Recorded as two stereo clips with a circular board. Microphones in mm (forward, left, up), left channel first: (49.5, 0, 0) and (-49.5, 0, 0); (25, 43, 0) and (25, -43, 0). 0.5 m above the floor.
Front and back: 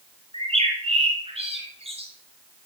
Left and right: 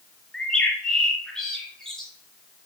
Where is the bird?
175° left, 3 m.